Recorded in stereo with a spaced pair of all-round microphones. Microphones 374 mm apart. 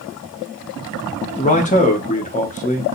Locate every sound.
1.4 s a man speaking: 20° left (ahead or behind), 1.0 m